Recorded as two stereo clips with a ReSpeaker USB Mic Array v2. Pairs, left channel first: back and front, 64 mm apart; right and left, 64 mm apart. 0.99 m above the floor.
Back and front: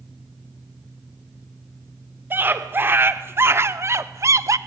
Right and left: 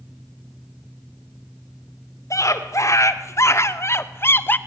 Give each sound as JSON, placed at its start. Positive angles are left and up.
{"t": 2.3, "sound": "a scream", "azimuth_deg": -55, "distance_m": 2.5}